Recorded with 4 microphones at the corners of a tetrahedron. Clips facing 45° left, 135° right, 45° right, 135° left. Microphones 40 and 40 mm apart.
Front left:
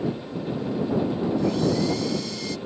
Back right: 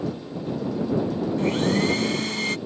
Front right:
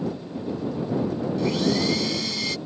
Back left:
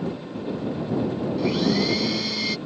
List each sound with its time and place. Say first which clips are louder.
1.4 s a blender: back right 2 dB, back left 1 dB; 145° right